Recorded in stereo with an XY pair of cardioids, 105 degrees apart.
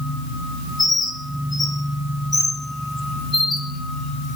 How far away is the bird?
About 0.7 m.